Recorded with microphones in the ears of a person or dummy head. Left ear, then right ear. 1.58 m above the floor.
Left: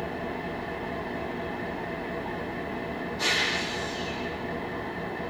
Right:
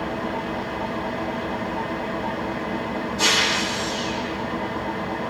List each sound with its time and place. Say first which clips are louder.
0.0 s an engine running: right 6 dB; 75° right (ahead or behind), 2.5 m